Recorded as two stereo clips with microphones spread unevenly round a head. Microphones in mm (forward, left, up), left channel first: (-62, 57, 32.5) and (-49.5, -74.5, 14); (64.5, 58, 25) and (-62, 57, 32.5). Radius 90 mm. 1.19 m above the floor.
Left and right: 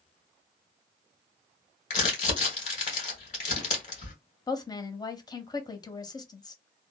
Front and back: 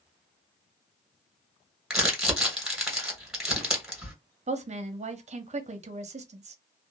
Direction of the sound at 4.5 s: 160° left.